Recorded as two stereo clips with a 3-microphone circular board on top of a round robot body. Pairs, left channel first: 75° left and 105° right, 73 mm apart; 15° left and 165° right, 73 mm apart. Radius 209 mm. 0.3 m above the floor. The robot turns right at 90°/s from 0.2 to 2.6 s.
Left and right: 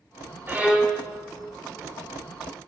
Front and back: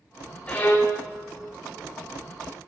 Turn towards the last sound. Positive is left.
turn(degrees=140)